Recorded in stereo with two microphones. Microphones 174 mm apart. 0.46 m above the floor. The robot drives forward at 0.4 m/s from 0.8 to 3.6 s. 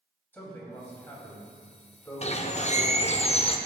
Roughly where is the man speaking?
Centre.